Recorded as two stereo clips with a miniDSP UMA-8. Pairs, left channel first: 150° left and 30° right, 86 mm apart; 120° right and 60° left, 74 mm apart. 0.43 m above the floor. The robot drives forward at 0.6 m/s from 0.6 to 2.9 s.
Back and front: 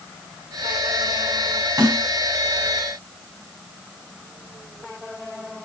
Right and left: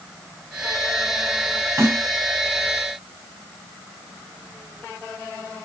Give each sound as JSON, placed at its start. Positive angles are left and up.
{"t": 1.8, "sound": "a snare drum", "azimuth_deg": 15, "distance_m": 3.0}